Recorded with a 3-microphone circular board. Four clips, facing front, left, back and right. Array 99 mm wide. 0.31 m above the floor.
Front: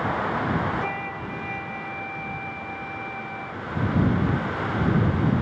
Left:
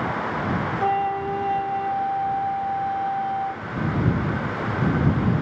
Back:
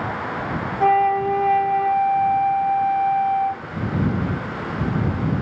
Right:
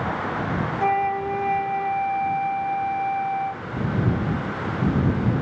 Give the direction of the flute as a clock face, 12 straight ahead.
6 o'clock.